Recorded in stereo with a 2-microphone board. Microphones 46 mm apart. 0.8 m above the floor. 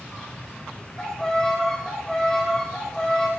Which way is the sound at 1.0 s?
15° left (ahead or behind).